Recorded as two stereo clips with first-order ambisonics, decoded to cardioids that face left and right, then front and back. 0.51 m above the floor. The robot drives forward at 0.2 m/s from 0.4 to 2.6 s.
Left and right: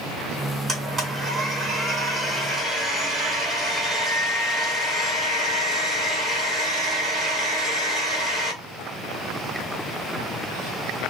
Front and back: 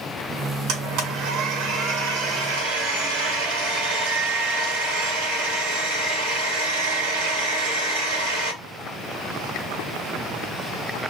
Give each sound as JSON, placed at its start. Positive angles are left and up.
{"t": 0.7, "sound": "a blender", "azimuth_deg": -160, "distance_m": 1.1}